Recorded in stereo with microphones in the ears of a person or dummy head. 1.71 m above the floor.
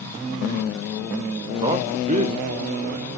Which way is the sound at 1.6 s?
25° right (ahead or behind).